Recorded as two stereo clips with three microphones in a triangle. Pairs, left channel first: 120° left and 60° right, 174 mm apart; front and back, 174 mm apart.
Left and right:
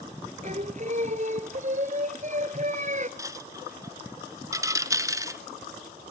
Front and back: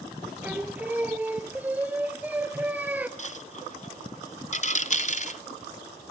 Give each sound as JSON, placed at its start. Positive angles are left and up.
{"t": 0.4, "sound": "singing", "azimuth_deg": -100, "distance_m": 1.0}
{"t": 3.2, "sound": "a dropped coin", "azimuth_deg": 0, "distance_m": 0.8}